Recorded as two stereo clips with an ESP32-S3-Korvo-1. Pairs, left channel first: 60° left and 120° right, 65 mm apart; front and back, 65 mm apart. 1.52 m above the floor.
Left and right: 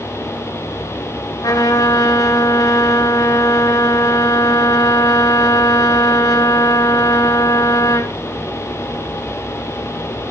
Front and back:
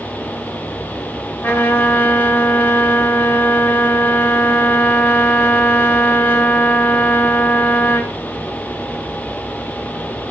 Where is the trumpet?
65° left, 5.5 m.